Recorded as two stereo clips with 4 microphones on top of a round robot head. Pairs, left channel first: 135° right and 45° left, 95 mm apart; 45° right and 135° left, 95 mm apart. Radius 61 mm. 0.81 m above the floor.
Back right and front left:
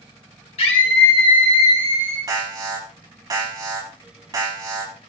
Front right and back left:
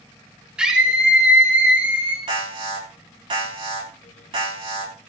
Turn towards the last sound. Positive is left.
turn(degrees=95)